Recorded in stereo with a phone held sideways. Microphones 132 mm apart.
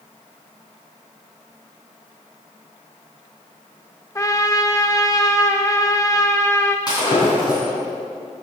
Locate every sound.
4.2 s a trumpet: 25° left (ahead or behind), 0.8 m
6.9 s breaking glass: 30° left (ahead or behind), 2.5 m